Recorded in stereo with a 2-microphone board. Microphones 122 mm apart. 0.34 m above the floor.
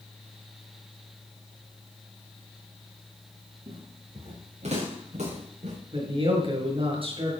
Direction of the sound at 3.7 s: 55° right (ahead or behind).